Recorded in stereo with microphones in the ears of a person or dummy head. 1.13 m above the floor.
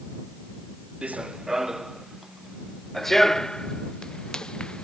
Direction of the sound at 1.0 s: 5° right (ahead or behind).